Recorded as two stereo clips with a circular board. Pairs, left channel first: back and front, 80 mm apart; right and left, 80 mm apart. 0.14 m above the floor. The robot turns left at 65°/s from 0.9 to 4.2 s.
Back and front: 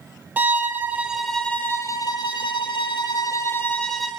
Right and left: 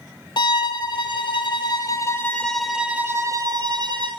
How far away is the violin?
About 0.6 m.